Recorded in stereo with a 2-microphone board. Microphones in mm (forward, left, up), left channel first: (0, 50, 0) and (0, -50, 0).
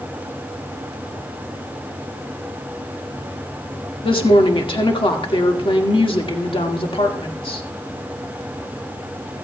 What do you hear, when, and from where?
4.0 s a woman speaking: 60° left (ahead or behind), 1.7 m